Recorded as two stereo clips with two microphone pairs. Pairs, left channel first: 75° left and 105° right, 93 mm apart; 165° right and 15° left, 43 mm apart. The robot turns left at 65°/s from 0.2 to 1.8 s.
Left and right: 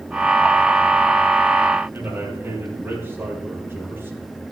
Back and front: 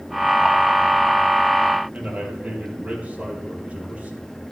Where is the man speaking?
40° right, 4.5 m.